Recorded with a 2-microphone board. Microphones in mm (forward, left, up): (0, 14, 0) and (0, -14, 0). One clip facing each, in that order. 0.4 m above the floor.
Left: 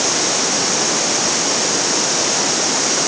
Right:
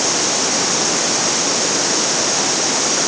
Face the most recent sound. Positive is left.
No sound to turn to.